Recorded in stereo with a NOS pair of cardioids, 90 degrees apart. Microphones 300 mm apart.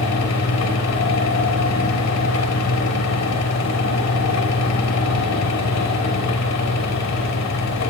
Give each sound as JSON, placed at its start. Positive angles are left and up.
{"t": 0.0, "sound": "a fan", "azimuth_deg": 60, "distance_m": 3.0}